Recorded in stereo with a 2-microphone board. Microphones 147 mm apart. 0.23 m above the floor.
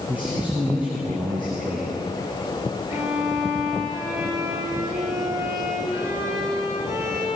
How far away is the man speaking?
About 6.5 m.